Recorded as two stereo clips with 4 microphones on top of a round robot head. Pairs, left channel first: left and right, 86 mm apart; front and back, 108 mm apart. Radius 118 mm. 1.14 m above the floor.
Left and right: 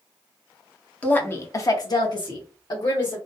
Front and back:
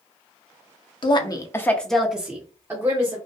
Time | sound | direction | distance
1.0 | a woman speaking | 20° left | 0.7 m